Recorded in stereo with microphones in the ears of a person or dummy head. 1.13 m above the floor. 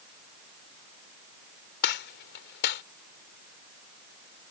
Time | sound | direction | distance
1.8 | a gunshot | 60° left (ahead or behind) | ?